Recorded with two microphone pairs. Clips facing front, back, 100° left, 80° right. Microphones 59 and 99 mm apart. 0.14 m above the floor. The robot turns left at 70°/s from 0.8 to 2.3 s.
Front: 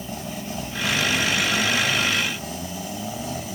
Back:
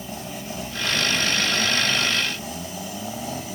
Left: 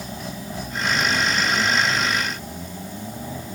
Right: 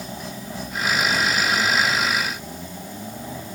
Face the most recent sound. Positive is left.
No sound to turn to.